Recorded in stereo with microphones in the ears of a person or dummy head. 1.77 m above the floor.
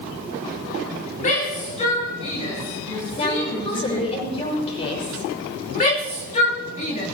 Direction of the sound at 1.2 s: 40° left (ahead or behind).